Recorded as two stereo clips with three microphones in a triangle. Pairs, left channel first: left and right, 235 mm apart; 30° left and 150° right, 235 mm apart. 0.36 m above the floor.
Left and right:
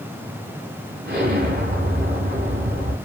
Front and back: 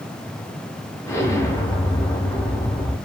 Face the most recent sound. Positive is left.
turn(degrees=-50)